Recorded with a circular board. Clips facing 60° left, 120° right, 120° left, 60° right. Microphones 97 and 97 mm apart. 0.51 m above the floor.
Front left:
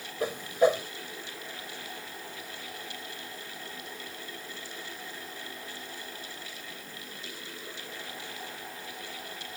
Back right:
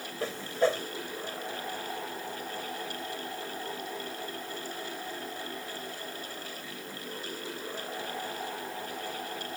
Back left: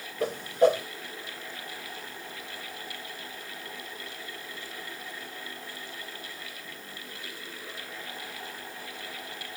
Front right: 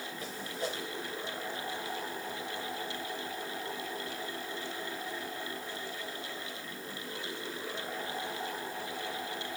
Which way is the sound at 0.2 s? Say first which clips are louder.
Front left 3 dB, back left 17 dB; 135° left.